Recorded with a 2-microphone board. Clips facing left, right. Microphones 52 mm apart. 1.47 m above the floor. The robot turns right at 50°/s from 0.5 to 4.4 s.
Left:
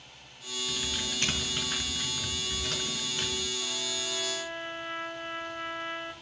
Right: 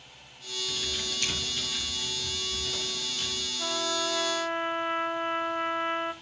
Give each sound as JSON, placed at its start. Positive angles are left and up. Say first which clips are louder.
{"t": 0.7, "sound": "typing on a keyboard", "louder": "even", "side_deg": 10, "distance_m": 5.0}
{"t": 3.6, "sound": "a trumpet", "louder": "right 6 dB", "azimuth_deg": -75, "distance_m": 1.0}